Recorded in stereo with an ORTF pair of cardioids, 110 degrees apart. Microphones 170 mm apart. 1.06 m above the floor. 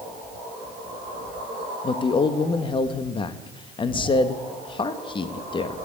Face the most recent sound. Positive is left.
turn(degrees=30)